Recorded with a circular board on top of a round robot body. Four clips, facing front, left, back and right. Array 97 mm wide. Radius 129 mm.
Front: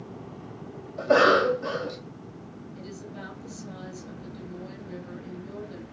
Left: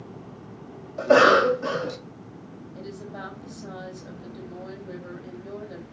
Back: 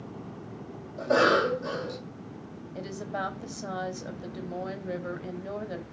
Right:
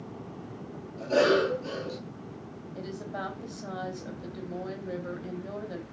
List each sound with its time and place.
1.0 s a cough: 75° left, 2.5 m
2.8 s a woman speaking: 170° right, 3.5 m